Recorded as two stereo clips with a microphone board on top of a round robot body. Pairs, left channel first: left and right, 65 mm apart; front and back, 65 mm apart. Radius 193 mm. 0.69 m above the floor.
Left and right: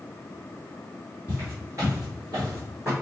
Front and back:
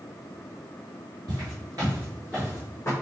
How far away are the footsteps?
About 1.1 m.